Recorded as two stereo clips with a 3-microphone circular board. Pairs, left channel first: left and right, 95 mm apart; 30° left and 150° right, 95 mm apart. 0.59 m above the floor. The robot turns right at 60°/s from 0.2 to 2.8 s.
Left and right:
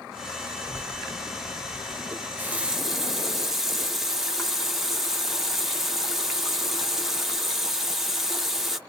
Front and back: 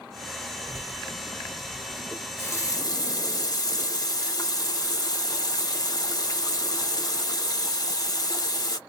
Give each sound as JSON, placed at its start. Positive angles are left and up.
{"t": 0.6, "sound": "a child speaking", "azimuth_deg": 145, "distance_m": 0.9}
{"t": 2.1, "sound": "a running tap", "azimuth_deg": -45, "distance_m": 0.8}